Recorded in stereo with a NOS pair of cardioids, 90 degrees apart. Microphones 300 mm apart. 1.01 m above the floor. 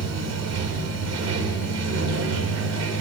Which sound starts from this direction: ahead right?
Running water, at 0.0 s.